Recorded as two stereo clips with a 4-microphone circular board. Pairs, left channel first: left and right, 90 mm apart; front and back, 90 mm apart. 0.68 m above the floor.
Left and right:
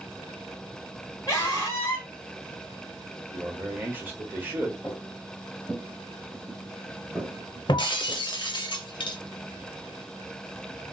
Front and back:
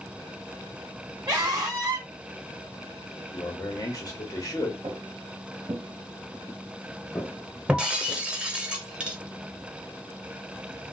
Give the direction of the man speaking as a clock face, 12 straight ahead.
1 o'clock.